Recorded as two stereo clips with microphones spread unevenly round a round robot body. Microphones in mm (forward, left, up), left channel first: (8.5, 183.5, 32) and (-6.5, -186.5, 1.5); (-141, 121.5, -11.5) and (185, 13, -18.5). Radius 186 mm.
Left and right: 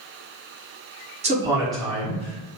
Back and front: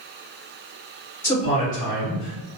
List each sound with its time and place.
1.2 s a man speaking: 120° right, 0.8 m; by 2.5 s 145° left, 0.9 m